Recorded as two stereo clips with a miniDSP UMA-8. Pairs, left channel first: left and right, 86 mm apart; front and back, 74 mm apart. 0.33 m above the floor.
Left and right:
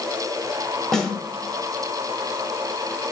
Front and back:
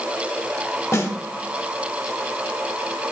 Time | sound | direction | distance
0.9 | a snare drum | 10° left | 1.5 m